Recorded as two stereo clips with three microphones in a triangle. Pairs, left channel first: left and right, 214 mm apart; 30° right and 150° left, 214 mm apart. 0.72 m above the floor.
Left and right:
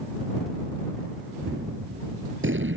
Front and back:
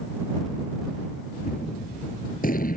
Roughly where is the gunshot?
Right.